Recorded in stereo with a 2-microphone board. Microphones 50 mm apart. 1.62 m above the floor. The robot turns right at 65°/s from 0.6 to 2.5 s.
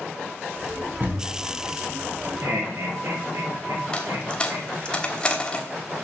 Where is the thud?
30° right (ahead or behind), 4 m; by 1.4 s 50° right (ahead or behind), 4 m.